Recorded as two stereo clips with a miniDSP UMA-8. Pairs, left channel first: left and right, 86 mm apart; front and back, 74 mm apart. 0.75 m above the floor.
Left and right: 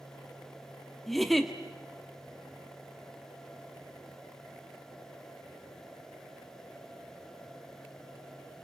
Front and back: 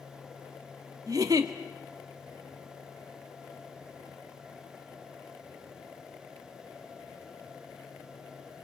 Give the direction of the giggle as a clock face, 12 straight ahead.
6 o'clock.